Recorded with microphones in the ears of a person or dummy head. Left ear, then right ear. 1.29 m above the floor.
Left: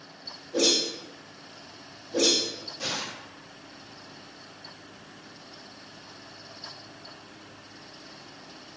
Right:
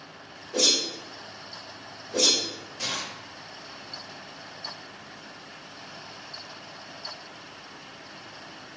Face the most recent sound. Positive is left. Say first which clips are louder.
# right 1 dB
turn(degrees=-75)  # may be behind; listen again after turning